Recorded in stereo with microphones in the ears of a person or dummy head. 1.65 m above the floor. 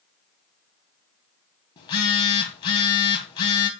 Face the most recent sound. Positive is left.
turn(degrees=25)  # may be behind; listen again after turning